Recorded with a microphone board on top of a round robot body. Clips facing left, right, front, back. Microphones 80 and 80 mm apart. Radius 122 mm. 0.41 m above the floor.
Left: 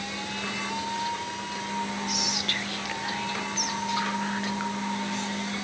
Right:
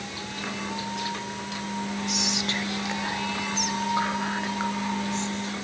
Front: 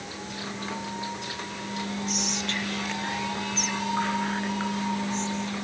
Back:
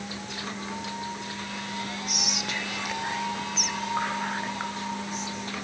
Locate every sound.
2.1 s whispering: 115° right, 1.1 m